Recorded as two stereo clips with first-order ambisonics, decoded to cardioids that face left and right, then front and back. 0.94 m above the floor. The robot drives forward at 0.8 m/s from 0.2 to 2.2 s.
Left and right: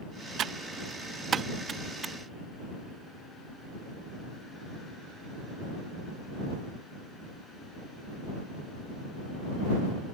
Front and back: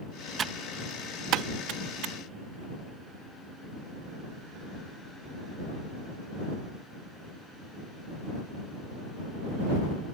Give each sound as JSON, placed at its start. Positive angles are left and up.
{"t": 0.4, "sound": "typing on a keyboard", "azimuth_deg": -125}